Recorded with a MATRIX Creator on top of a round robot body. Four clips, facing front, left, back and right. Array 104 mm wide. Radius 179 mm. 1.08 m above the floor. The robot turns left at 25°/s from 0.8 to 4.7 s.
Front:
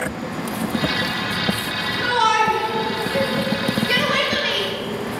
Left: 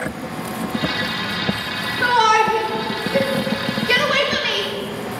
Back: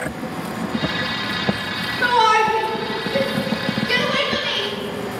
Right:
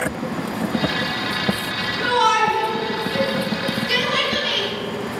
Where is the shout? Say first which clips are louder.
Left 2 dB, back 2 dB; 135° left, 3 m; by 4.7 s 65° left, 3 m.